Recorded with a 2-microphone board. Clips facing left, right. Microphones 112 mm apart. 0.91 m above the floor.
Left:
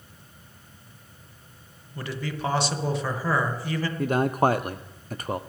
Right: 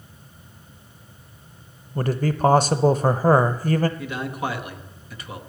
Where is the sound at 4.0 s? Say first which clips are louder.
Left 7 dB; 45° left (ahead or behind), 0.5 m.